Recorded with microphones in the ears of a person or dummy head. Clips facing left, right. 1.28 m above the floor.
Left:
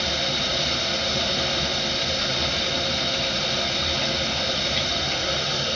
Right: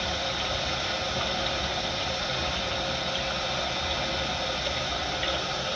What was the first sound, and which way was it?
Running water, 30° left (ahead or behind).